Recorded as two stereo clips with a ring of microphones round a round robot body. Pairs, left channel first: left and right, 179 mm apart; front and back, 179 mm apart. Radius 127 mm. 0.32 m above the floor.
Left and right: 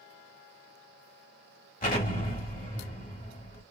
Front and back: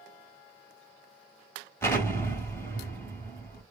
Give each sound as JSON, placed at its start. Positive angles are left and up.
{"t": 1.8, "sound": "an explosion", "azimuth_deg": 70, "distance_m": 2.0}